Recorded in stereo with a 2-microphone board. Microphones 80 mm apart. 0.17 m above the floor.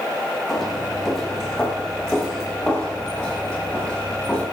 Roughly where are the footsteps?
Centre.